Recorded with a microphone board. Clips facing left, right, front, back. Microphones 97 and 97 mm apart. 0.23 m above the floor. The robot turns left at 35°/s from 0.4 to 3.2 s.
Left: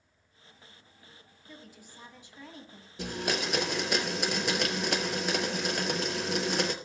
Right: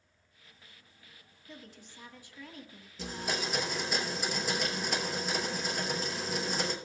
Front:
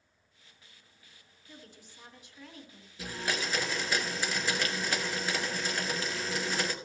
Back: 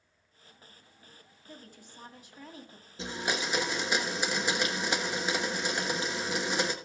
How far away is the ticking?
No ticking in this recording.